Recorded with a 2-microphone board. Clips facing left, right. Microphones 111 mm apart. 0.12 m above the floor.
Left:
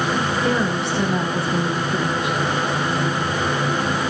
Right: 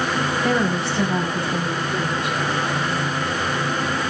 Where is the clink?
No clink in this recording.